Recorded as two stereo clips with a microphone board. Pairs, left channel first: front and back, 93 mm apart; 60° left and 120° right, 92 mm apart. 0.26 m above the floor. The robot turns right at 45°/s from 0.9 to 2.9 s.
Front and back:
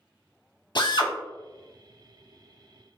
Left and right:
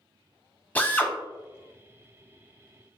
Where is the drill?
10° right, 0.6 m; by 1.1 s straight ahead, 0.6 m.